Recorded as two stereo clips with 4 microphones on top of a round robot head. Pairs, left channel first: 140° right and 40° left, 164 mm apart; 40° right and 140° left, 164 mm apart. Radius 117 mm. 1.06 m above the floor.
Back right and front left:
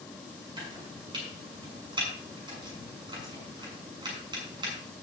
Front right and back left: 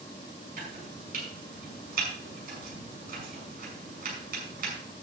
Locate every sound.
0.6 s chopping: 105° left, 6.5 m